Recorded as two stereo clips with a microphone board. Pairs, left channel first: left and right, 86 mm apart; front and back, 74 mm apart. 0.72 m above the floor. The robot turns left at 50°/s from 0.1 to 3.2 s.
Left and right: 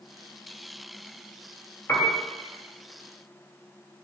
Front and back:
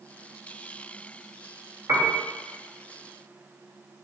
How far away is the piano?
About 0.7 m.